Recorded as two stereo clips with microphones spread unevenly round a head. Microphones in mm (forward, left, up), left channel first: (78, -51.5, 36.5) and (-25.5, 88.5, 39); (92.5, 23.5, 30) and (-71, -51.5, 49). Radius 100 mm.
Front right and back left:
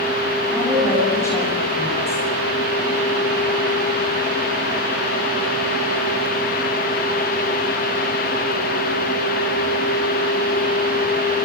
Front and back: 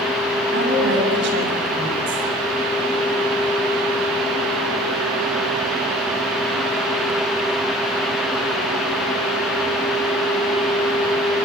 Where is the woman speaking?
130° right, 8.5 m.